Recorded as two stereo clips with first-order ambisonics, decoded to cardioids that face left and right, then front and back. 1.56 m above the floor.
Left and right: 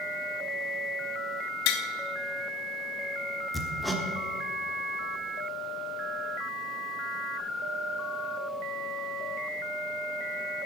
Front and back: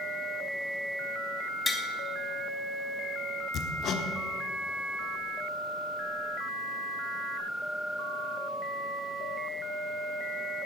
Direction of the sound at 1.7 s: 80° left.